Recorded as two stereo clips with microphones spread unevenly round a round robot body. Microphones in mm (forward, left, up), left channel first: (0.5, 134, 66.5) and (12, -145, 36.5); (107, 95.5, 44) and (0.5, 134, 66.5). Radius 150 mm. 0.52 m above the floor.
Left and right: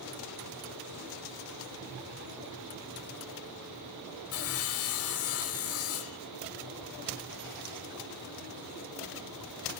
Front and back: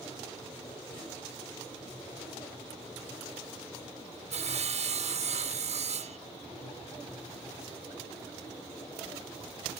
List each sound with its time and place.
4.3 s sawing: 135° left, 1.0 m